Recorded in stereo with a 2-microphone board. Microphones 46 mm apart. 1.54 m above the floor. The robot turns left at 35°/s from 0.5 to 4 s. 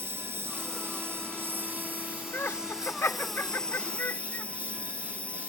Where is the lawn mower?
85° right; by 5.5 s 150° left.